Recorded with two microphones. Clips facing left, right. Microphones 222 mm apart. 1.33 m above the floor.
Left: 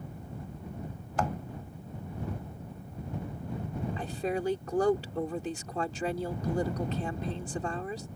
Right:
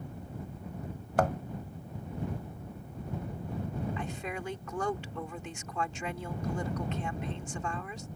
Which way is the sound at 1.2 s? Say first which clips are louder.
Right 4 dB; 55° right (ahead or behind).